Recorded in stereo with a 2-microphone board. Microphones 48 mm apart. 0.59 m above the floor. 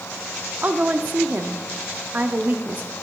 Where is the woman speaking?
35° right (ahead or behind), 0.8 m.